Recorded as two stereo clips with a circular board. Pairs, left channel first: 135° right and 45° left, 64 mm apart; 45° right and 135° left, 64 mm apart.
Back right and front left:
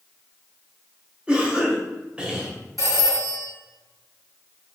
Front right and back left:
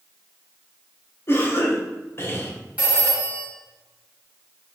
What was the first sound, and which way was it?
A cough, 20° right.